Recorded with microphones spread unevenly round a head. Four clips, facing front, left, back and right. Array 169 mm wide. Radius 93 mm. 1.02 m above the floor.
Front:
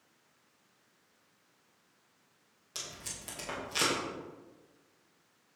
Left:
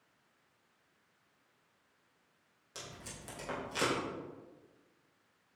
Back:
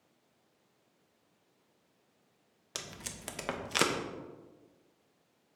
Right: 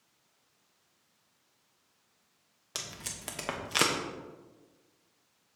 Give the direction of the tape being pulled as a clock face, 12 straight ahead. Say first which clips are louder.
Right 3 dB, back 2 dB; 5 o'clock.